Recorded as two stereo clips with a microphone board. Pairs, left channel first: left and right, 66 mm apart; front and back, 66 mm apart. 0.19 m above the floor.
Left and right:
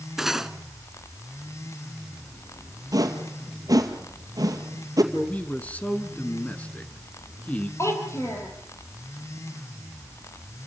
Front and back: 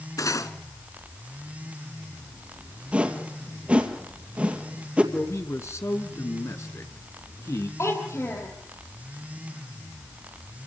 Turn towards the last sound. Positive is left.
turn(degrees=45)